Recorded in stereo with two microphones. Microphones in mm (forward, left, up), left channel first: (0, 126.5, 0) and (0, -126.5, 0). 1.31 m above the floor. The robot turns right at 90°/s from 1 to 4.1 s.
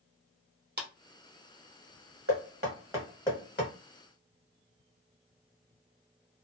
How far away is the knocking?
About 1.2 m.